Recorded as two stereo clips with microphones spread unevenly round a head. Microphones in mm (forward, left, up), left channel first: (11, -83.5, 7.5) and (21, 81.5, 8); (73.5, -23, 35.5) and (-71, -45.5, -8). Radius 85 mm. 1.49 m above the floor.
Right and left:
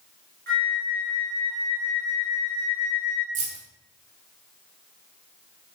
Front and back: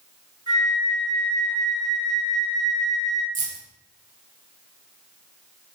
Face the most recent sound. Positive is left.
turn(degrees=135)